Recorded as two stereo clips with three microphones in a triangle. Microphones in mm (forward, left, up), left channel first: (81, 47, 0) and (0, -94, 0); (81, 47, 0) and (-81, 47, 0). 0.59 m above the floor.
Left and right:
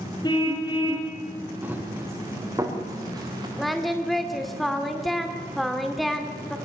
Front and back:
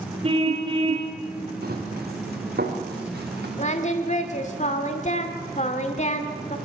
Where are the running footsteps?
160° left, 5.5 m; by 3.5 s straight behind, 5.5 m.